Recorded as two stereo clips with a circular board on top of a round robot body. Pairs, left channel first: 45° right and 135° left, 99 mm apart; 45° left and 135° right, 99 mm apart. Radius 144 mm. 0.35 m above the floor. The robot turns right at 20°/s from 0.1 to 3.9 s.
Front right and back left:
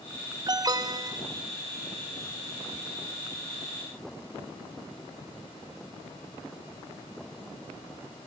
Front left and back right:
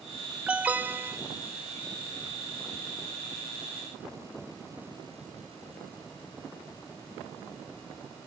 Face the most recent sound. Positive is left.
turn(degrees=-140)